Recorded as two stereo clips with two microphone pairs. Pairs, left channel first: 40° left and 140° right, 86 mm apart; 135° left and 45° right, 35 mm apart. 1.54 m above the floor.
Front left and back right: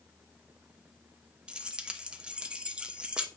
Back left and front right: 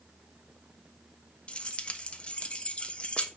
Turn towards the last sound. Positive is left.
turn(degrees=150)